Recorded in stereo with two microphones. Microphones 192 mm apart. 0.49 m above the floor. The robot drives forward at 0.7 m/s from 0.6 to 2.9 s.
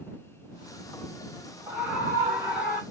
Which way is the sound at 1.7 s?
10° right (ahead or behind).